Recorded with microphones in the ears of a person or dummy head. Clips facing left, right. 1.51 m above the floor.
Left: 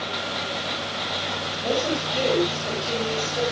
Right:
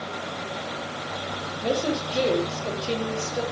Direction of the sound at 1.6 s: 20° right (ahead or behind).